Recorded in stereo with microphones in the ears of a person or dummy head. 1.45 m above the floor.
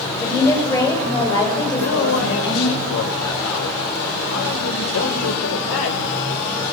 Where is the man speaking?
75° left (ahead or behind), 5 m.